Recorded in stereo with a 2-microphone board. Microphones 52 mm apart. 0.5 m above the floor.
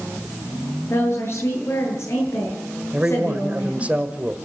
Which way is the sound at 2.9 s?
25° right (ahead or behind).